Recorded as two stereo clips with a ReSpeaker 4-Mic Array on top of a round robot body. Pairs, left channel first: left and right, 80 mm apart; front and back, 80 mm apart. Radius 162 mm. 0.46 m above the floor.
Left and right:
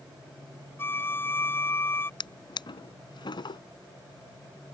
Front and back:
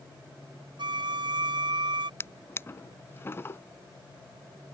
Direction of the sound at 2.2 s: 60° left.